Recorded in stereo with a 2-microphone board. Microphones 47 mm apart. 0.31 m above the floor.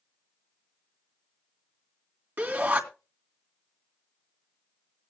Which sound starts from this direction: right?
A shout, at 2.4 s.